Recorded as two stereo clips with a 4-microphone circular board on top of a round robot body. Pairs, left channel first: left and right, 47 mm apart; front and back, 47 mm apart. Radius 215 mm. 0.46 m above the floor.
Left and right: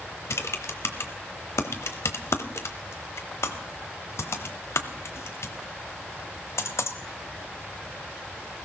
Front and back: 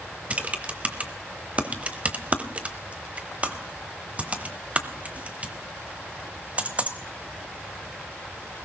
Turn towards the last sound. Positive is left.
turn(degrees=115)